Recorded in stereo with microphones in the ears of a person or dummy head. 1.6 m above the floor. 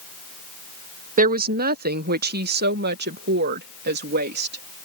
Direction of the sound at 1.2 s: 50° right (ahead or behind).